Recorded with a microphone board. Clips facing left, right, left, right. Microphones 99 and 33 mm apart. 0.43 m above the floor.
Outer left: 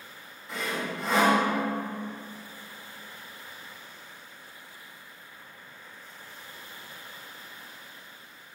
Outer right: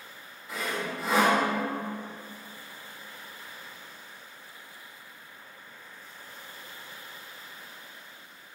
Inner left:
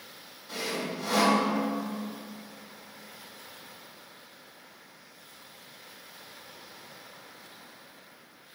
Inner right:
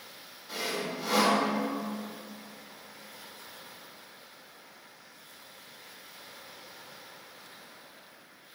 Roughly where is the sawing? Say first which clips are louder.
Even, even; centre.